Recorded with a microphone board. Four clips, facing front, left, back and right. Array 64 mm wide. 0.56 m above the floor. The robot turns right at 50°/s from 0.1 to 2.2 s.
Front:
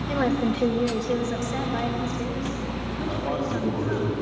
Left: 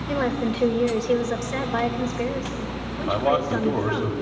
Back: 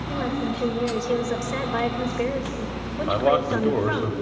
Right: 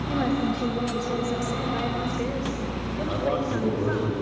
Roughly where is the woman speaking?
Ahead left.